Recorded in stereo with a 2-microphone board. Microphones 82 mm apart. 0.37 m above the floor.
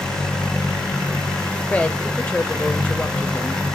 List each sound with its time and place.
1.7 s a woman speaking: 15° left (ahead or behind), 1.1 m